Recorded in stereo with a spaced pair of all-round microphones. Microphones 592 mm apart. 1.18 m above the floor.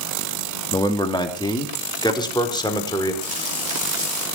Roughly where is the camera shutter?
No camera shutter in this recording.